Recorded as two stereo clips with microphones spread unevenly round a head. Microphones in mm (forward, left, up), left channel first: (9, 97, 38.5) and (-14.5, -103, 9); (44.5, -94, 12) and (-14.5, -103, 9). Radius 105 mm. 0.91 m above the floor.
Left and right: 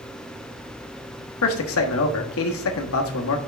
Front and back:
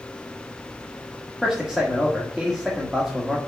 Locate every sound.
1.4 s a man speaking: 105° left, 1.4 m